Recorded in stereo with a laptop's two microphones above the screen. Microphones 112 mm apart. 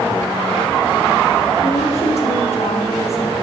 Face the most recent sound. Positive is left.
turn(degrees=75)  # may be behind; listen again after turning